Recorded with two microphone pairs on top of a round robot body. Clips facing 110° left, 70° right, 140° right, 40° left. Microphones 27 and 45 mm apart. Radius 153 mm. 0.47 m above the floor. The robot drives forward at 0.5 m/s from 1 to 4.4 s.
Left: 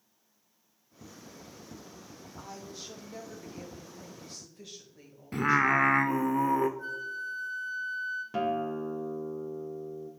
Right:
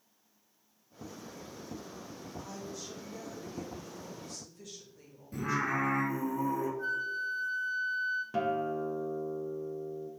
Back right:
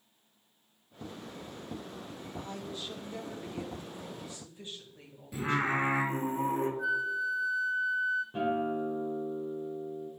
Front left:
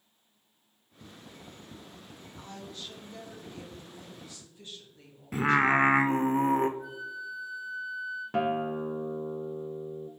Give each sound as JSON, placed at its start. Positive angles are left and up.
{"t": 2.4, "sound": "a woman speaking", "azimuth_deg": 140, "distance_m": 1.9}
{"t": 5.3, "sound": "singing", "azimuth_deg": 80, "distance_m": 0.6}
{"t": 6.8, "sound": "a flute", "azimuth_deg": -155, "distance_m": 0.9}
{"t": 8.3, "sound": "a guitar", "azimuth_deg": 25, "distance_m": 0.7}